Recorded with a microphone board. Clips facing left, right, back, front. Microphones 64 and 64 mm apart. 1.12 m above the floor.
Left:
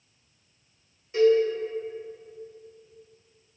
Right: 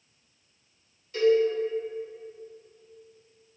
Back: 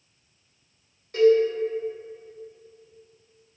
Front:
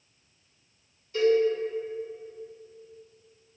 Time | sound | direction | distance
1.1 | a cowbell | 150° left | 1.3 m